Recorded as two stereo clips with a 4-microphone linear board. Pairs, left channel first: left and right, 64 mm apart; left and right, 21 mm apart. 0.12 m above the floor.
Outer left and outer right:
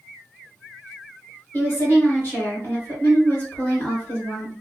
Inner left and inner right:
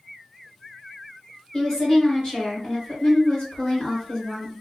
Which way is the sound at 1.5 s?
35° left (ahead or behind).